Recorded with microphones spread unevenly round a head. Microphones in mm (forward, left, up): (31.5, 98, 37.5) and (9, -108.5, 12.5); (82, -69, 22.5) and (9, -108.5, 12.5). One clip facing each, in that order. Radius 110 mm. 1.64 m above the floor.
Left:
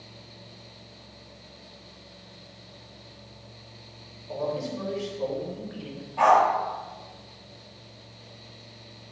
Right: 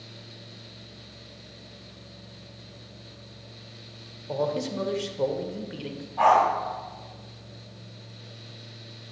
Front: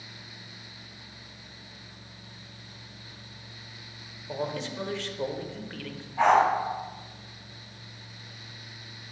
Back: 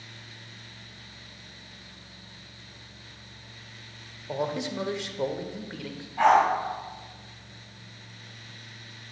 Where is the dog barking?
110° left, 1.9 m.